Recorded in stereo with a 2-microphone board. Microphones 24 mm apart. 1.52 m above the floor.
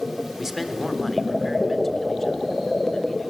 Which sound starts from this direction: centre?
A man speaking, at 0.4 s.